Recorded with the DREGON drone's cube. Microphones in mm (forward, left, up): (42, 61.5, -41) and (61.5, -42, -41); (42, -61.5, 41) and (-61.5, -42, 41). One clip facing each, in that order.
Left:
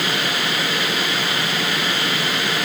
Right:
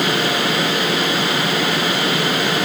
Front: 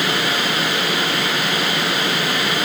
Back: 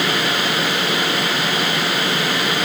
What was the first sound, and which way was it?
Only background noise.